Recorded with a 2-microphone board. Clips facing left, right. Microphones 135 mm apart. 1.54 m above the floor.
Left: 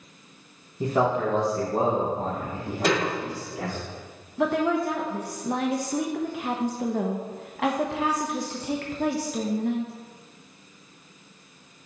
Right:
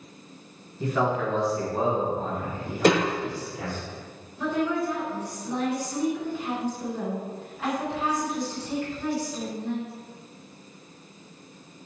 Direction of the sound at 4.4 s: 70° left (ahead or behind).